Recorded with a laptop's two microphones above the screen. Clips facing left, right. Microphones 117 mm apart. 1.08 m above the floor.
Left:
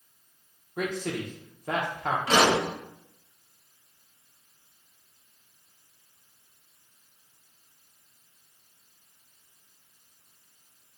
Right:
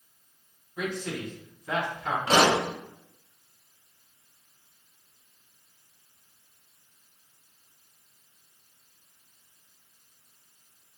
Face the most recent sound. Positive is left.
turn(degrees=-30)  # may be behind; listen again after turning